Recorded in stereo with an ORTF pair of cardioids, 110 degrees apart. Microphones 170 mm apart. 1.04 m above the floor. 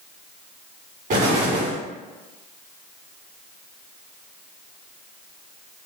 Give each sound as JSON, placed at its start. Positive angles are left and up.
{"t": 1.1, "sound": "an explosion", "azimuth_deg": -60, "distance_m": 1.9}